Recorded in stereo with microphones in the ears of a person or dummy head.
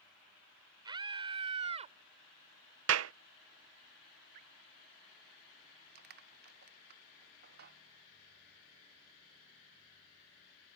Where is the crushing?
60° right (ahead or behind).